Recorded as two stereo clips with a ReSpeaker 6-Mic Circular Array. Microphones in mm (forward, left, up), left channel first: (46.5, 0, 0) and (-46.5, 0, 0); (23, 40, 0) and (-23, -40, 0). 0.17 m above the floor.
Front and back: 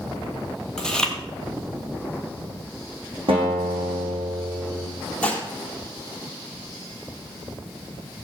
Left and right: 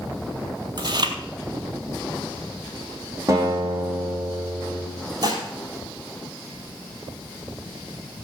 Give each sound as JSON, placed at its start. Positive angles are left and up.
{"t": 0.8, "sound": "chewing", "azimuth_deg": -80, "distance_m": 1.5}
{"t": 3.3, "sound": "a guitar", "azimuth_deg": -175, "distance_m": 6.5}
{"t": 5.2, "sound": "dishes clattering", "azimuth_deg": -80, "distance_m": 3.0}